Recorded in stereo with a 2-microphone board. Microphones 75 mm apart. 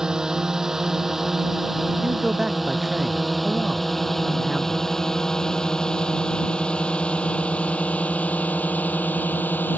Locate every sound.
0.0 s a drone: 10° right (ahead or behind); by 9.8 s 25° left (ahead or behind)
2.0 s a man speaking: 5° right (ahead or behind)